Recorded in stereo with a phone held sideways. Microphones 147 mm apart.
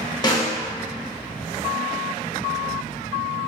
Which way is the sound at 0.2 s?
25° left (ahead or behind).